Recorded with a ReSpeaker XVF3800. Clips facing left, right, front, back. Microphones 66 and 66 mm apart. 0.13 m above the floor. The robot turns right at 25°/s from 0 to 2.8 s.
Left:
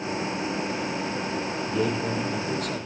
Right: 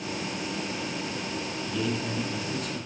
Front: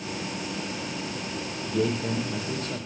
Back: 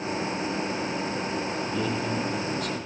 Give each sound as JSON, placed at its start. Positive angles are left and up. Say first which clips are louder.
{"t": 1.6, "sound": "a man speaking", "louder": "left 4 dB, front 1 dB", "azimuth_deg": 35, "distance_m": 4.0}